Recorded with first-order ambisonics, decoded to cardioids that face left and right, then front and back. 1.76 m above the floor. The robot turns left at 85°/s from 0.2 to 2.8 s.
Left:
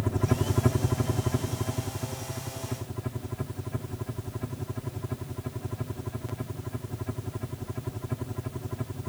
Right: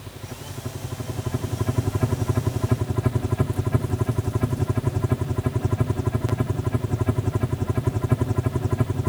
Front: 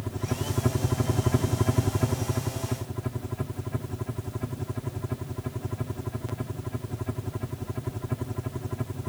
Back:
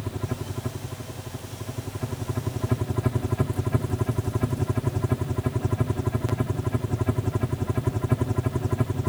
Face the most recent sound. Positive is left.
turn(degrees=-125)